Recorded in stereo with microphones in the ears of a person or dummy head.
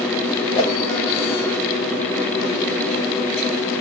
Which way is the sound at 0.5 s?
20° left (ahead or behind).